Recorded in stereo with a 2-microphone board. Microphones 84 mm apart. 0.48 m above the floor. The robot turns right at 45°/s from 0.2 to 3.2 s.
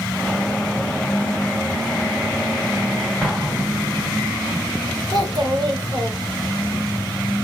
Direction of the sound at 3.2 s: Centre (ahead or behind).